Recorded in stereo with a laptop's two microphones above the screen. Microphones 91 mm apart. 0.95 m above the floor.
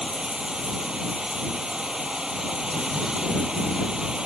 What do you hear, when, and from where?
0.0 s running water: 10° right (ahead or behind)